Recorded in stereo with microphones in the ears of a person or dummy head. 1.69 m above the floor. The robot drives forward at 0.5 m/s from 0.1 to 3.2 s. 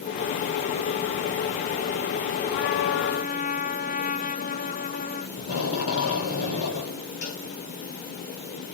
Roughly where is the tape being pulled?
Left.